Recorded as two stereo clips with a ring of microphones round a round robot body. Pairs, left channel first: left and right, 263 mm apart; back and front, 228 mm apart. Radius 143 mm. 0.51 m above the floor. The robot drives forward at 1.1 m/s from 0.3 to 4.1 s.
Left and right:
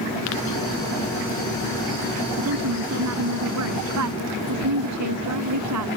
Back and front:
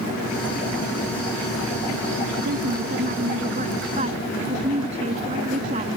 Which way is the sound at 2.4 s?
55° right.